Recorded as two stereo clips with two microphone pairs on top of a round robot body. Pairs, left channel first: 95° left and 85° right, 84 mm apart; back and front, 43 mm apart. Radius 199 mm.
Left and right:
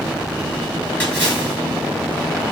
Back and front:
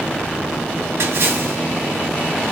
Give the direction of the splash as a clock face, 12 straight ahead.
11 o'clock.